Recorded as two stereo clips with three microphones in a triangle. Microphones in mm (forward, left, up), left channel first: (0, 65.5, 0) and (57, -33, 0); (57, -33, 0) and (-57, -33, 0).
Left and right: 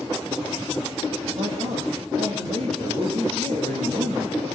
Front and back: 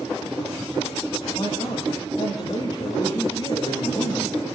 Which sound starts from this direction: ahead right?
A man speaking, at 1.3 s.